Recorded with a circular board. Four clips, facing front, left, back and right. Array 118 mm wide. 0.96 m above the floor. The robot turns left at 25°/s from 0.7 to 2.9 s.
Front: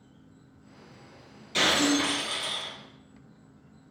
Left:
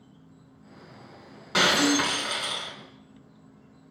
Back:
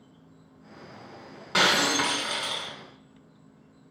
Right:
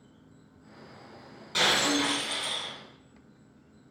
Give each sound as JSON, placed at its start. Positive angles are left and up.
{"t": 0.0, "sound": "an insect", "azimuth_deg": 160, "distance_m": 2.5}
{"t": 1.5, "sound": "breaking glass", "azimuth_deg": 145, "distance_m": 3.0}